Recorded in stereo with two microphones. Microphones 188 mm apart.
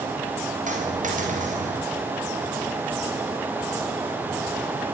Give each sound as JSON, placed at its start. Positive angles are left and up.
{"t": 0.7, "sound": "a dropped coin", "side_deg": -40, "distance_m": 9.5}